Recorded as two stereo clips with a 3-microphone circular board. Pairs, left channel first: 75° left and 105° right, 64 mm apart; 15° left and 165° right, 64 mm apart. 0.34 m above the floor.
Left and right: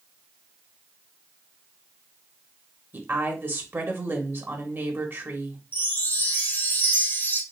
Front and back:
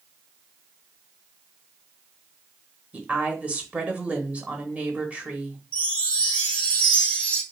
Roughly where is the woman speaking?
Behind right.